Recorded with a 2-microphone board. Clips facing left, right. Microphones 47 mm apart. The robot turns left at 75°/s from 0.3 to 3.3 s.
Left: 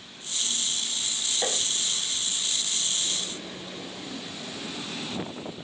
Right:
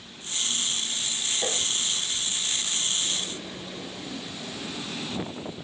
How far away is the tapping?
About 7.5 m.